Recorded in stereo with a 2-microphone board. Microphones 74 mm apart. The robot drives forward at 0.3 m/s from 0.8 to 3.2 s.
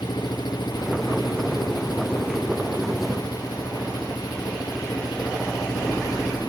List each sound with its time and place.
0.0 s an engine running: 70° left (ahead or behind); by 6.5 s 65° left (ahead or behind)